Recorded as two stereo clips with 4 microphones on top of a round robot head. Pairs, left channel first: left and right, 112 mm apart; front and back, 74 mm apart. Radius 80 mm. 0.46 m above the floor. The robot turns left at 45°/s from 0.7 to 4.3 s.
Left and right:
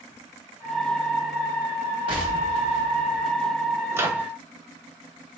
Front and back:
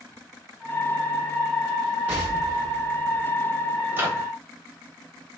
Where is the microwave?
140° right, 0.9 m; by 4.3 s 155° right, 0.9 m.